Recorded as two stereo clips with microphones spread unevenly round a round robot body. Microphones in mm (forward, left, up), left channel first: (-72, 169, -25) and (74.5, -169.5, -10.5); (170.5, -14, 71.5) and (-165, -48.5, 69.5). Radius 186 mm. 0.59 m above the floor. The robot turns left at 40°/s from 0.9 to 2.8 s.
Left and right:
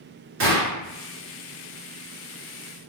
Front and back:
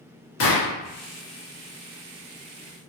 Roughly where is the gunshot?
Ahead.